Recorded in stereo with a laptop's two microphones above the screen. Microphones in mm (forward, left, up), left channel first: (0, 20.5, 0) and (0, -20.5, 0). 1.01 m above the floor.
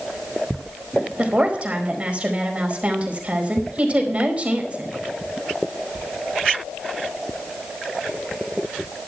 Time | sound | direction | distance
1.2 | a woman speaking | 30° right (ahead or behind) | 4.5 m